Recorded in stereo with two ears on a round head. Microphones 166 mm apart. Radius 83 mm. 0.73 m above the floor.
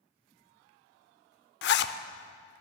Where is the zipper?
60° left (ahead or behind), 0.5 m.